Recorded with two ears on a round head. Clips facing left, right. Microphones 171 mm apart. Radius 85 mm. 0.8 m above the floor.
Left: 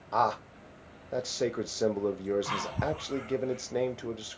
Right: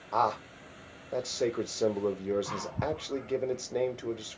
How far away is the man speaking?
About 0.5 m.